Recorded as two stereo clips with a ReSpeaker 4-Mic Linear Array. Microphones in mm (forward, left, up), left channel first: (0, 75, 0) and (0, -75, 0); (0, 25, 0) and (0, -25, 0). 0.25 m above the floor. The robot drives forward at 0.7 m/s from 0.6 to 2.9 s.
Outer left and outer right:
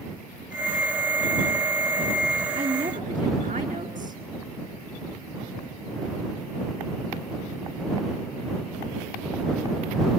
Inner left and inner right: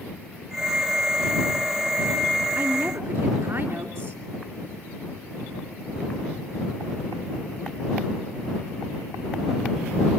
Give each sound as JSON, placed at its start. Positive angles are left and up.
{"t": 2.5, "sound": "a woman speaking", "side_deg": -65, "distance_m": 3.0}